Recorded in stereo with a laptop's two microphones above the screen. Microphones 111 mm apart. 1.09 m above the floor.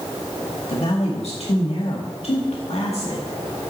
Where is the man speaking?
70° left (ahead or behind), 1.7 m.